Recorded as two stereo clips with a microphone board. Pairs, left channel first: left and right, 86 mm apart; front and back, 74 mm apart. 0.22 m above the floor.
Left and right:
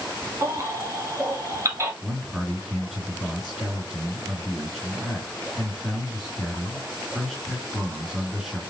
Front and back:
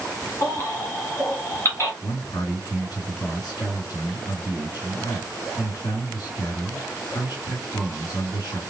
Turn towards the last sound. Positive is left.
turn(degrees=0)